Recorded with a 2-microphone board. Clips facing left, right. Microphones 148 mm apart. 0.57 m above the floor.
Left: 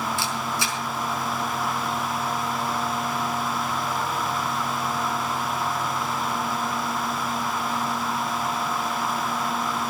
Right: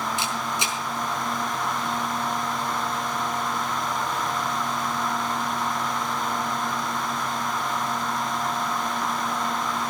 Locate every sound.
0.2 s a camera shutter: 20° right (ahead or behind), 4 m